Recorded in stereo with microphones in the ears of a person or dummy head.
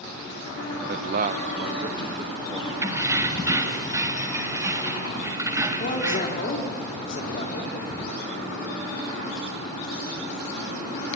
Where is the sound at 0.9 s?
50° right (ahead or behind), 0.5 m; by 2.7 s 25° right (ahead or behind), 1.8 m.